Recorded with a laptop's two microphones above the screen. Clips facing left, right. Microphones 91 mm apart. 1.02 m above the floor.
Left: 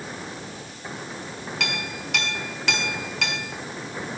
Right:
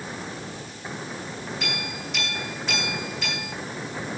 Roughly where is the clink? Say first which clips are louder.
Left 1 dB; left.